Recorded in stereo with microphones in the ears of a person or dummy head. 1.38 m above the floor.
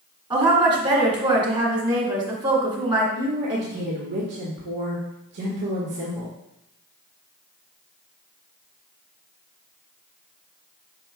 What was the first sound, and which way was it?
A woman speaking, 25° right (ahead or behind).